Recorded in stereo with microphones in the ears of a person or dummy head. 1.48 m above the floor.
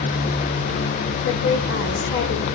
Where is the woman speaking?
65° left (ahead or behind), 1.4 m.